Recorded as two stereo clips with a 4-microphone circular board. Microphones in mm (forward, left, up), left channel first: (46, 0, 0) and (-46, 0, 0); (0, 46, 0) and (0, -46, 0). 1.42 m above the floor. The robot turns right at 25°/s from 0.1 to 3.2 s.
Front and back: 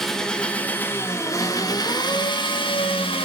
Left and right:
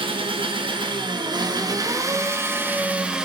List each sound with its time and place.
0.0 s an engine running: 85° right, 1.4 m; by 3.2 s 10° right, 1.4 m